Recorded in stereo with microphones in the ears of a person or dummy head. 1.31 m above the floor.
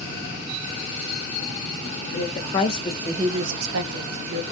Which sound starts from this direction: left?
A woman speaking, at 2.1 s.